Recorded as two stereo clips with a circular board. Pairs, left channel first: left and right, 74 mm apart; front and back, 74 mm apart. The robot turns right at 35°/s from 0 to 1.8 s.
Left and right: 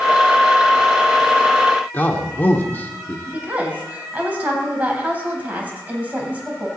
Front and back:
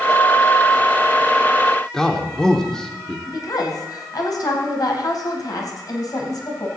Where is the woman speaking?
25° right, 3 m.